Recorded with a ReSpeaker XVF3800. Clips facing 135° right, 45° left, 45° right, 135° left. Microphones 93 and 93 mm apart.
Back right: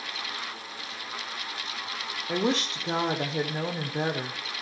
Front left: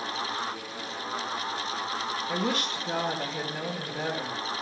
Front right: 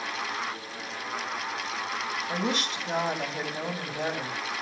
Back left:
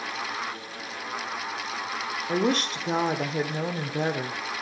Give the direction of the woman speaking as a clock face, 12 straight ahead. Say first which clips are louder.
Back right 5 dB, back left 7 dB; 6 o'clock.